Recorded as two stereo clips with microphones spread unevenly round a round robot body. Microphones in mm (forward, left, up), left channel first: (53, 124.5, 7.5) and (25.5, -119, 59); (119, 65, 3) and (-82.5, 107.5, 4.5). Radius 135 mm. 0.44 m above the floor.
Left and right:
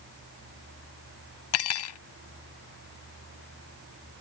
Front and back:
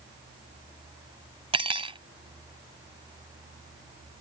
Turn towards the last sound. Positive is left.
turn(degrees=105)